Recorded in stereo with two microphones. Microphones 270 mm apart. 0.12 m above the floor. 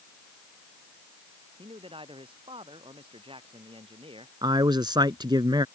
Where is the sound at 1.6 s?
20° right (ahead or behind).